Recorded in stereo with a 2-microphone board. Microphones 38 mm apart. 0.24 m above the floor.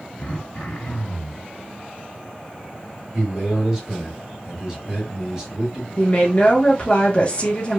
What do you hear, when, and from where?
0.2 s throat clearing: 45° left (ahead or behind), 1.6 m
3.1 s a man speaking: 10° right (ahead or behind), 1.3 m
6.0 s a woman speaking: 35° left (ahead or behind), 1.1 m